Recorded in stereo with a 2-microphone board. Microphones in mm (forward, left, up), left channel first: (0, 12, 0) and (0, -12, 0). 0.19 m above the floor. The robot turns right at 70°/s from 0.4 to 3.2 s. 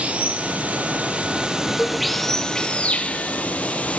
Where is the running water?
115° right, 1.0 m; by 4.0 s 85° left, 1.0 m.